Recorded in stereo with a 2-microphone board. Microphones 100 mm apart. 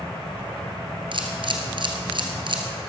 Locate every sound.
1.1 s a camera shutter: 55° right (ahead or behind), 1.7 m